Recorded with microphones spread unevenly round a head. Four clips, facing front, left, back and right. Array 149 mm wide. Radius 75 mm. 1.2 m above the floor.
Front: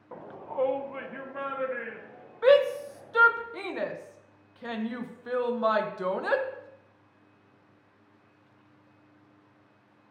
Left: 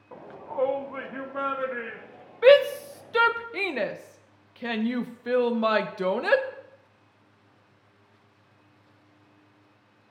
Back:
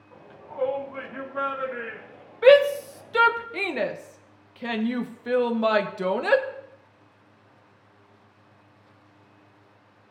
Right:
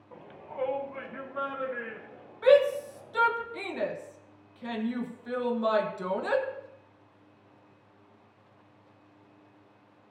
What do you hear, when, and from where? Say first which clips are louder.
0.1 s a shout: left 8 dB, front 6 dB; 35° left, 0.6 m; by 3.3 s 85° left, 2.5 m
2.4 s a shout: left 4 dB, back 5 dB; 110° left, 1.1 m